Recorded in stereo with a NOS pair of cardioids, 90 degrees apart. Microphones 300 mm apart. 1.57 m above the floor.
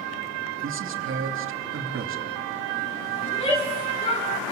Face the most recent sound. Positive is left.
turn(degrees=15)